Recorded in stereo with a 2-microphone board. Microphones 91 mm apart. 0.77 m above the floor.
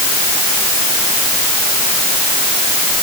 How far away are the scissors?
No scissors in this recording.